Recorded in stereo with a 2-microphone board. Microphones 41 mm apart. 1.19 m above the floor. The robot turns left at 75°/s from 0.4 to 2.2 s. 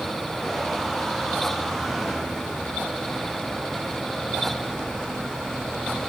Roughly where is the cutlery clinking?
I don't hear cutlery clinking.